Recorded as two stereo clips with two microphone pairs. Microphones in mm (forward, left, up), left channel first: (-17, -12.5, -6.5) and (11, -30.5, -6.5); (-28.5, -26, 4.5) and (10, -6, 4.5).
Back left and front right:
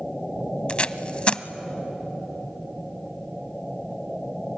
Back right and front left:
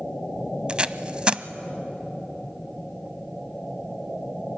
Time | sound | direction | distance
0.7 | tape being pulled | 95° left | 0.6 m